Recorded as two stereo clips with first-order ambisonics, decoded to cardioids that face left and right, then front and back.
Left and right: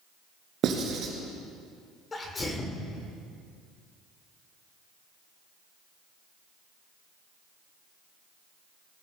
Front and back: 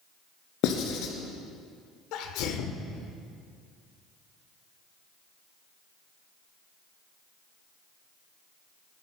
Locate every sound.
0.6 s writing: 35° right, 2 m
2.1 s a sneeze: 20° left, 1.4 m